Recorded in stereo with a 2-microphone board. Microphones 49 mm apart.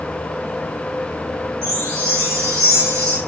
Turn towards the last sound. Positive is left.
turn(degrees=-80)